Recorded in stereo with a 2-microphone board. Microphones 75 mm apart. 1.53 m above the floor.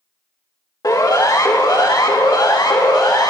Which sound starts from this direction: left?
A siren, at 0.8 s.